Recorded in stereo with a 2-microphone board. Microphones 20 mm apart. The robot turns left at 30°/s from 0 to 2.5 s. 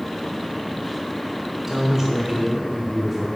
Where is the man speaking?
25° right (ahead or behind), 1.0 m; by 3.3 s 15° right (ahead or behind), 1.0 m.